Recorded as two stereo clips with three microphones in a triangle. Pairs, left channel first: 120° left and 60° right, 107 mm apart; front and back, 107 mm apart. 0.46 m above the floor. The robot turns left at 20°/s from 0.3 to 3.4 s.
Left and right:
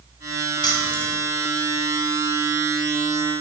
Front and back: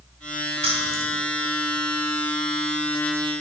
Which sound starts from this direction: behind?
Keys jangling, at 0.6 s.